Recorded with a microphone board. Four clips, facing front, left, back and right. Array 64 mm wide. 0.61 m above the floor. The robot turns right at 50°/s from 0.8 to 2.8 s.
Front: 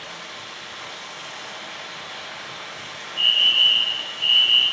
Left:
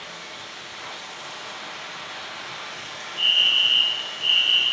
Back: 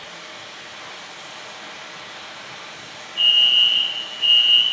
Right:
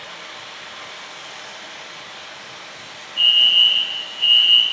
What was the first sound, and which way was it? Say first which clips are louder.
Running water: right 2 dB, front 1 dB; 70° right.